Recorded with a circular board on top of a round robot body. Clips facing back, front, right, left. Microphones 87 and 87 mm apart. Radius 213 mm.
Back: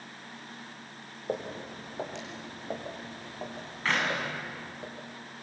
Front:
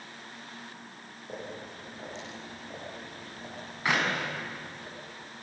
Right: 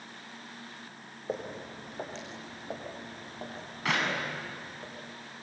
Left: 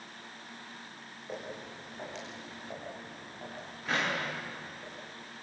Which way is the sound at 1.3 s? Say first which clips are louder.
Back 6 dB, right 5 dB; 145° right.